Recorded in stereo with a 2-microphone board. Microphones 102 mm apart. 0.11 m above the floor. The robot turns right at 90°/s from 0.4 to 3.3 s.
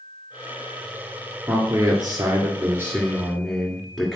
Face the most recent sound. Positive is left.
turn(degrees=5)